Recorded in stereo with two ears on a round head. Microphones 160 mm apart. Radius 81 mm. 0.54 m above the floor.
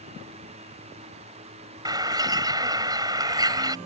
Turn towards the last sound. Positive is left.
turn(degrees=-20)  # may be behind; listen again after turning